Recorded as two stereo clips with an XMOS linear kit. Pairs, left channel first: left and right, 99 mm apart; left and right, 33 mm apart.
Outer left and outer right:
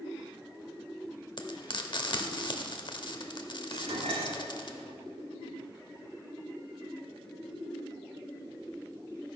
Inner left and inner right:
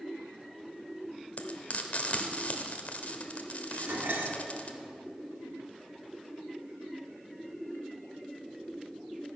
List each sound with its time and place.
1.4 s frying: 50° left (ahead or behind), 0.9 m
3.7 s dishes clattering: 85° right, 1.3 m